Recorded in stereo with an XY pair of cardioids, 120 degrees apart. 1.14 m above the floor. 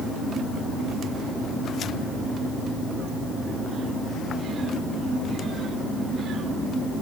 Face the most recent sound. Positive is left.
No sound to turn to.